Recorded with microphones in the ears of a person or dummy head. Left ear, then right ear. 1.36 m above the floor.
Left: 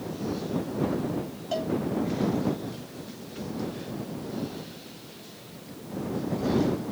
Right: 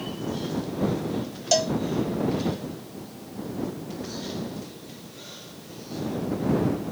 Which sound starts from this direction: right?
A cowbell, at 1.5 s.